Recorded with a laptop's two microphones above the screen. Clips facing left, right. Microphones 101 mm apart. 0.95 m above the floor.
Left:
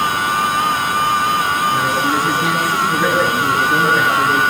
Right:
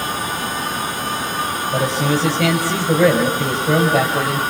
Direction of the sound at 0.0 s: 60° left (ahead or behind).